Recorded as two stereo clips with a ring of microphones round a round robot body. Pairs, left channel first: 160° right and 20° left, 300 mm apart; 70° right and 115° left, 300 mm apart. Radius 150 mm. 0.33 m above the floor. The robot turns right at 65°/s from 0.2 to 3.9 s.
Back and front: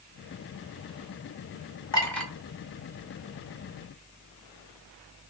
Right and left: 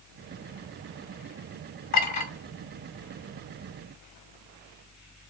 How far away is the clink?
About 1.4 m.